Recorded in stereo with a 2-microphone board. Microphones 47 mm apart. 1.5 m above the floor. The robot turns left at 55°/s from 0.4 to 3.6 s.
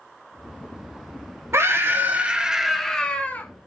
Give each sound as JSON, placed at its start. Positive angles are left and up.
{"t": 1.5, "sound": "a scream", "azimuth_deg": -115, "distance_m": 1.1}